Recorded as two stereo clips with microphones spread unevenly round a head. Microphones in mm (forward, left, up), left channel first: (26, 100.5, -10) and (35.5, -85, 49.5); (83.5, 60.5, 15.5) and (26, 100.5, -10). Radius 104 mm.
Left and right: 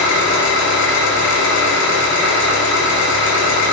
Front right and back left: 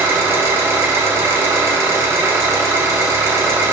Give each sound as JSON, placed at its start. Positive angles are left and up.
{"t": 0.0, "sound": "an engine running", "azimuth_deg": 95, "distance_m": 3.5}